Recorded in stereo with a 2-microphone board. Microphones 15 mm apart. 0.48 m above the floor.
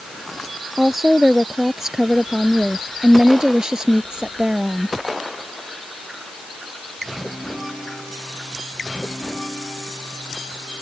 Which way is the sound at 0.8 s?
20° right (ahead or behind).